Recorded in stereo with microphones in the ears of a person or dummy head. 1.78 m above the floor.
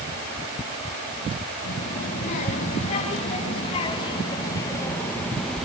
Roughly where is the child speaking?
Left.